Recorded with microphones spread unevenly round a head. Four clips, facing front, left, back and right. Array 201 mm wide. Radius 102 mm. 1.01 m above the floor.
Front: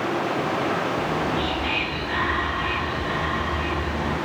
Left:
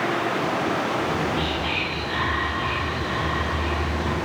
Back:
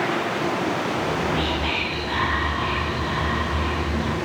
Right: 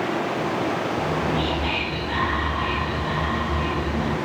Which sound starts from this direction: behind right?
Whispering, at 1.0 s.